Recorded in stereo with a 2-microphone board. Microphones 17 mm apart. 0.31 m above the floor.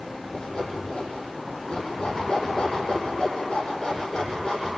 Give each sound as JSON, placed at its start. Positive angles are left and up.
{"t": 0.3, "sound": "sawing", "side_deg": 50, "distance_m": 8.5}